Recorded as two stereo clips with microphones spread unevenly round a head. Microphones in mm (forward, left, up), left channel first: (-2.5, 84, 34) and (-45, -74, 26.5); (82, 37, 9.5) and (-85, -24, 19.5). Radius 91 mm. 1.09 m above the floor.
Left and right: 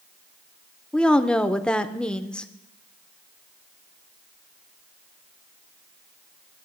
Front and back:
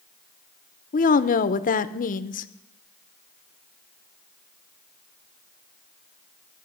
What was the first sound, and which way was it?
A woman speaking, 10° right.